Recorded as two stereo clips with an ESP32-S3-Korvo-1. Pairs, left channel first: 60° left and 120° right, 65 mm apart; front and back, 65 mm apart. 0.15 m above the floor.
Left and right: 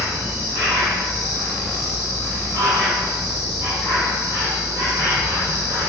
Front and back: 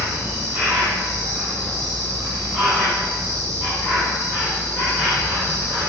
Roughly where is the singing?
I don't hear singing.